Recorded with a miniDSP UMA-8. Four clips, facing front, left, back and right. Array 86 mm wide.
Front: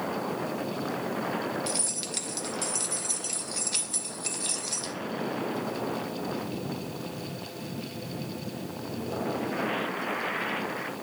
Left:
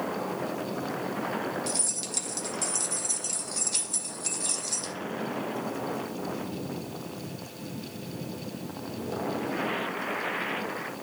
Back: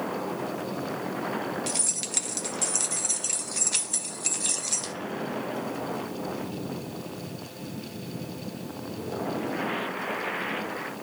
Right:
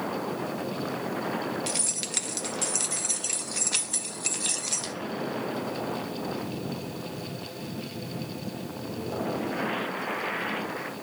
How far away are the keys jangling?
About 0.5 m.